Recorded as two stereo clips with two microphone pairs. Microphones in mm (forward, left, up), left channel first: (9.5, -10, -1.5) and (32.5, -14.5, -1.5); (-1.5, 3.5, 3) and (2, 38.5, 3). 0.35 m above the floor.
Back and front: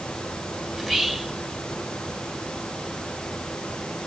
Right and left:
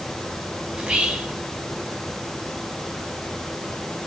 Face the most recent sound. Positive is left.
turn(degrees=85)